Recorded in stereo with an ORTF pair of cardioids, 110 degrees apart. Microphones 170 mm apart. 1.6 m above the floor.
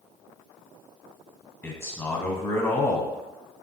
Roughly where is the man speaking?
Ahead.